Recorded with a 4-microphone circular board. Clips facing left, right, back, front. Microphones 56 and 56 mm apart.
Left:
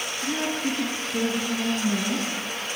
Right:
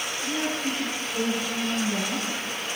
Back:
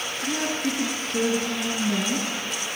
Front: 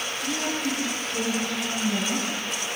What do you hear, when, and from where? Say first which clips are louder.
0.2 s a woman speaking: left 2 dB, back 2 dB; 130° left, 2.5 m; by 2.3 s 150° left, 4 m